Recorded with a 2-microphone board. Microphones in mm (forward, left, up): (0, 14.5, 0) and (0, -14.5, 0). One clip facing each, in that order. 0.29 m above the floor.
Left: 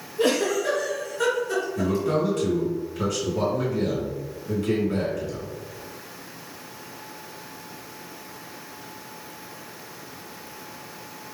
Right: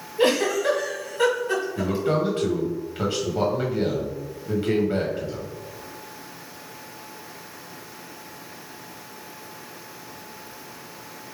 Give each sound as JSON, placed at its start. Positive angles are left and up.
{"t": 0.2, "sound": "a giggle", "side_deg": -40, "distance_m": 1.7}
{"t": 1.8, "sound": "a man speaking", "side_deg": -40, "distance_m": 1.6}